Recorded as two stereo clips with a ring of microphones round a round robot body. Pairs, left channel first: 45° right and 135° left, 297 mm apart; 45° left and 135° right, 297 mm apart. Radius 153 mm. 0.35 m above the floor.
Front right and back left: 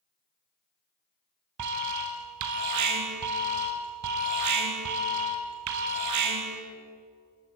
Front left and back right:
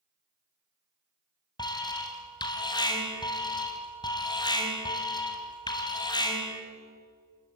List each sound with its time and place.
1.6 s an alarm: 120° left, 3 m